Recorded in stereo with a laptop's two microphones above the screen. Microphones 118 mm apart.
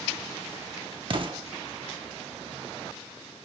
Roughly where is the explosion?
Right.